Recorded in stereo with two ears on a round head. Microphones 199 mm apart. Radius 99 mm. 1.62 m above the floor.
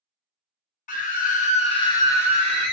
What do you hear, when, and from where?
0.9 s a scream: 40° left (ahead or behind), 0.7 m; by 2.7 s 5° left (ahead or behind), 1.1 m